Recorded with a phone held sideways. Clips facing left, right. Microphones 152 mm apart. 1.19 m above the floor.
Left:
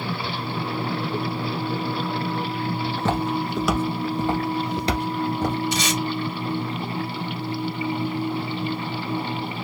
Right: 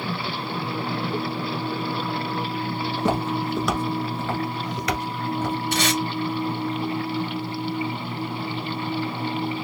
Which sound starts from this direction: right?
Tape being pulled, at 5.7 s.